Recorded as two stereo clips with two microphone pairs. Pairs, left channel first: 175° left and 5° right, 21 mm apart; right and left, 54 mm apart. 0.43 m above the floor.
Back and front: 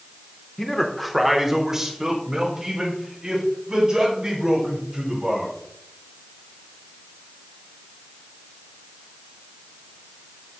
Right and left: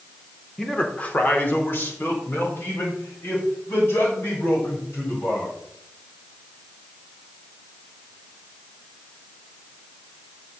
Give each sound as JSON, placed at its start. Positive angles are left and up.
{"t": 0.6, "sound": "a man speaking", "azimuth_deg": -150, "distance_m": 1.0}